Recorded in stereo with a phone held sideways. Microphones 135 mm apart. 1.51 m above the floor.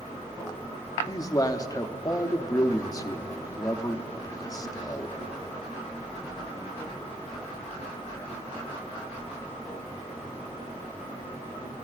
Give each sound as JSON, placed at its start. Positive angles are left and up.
{"t": 1.1, "sound": "a man speaking", "side_deg": 25, "distance_m": 0.7}